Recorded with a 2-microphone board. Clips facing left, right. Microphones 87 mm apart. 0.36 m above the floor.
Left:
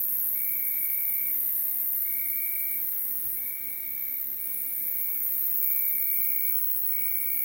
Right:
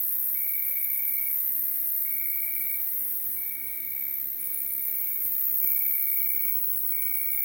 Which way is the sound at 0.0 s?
65° left (ahead or behind).